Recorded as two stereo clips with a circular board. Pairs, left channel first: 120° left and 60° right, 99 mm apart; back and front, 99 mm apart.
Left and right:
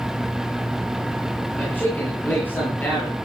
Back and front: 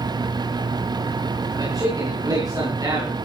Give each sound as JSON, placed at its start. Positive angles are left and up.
{"t": 1.6, "sound": "a man speaking", "azimuth_deg": 50, "distance_m": 8.5}